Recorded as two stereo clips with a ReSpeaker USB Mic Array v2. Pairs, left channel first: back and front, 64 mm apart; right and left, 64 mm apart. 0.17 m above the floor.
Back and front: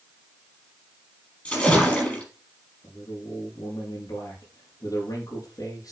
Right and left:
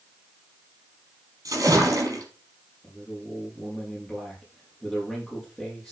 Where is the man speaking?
175° left, 6 m.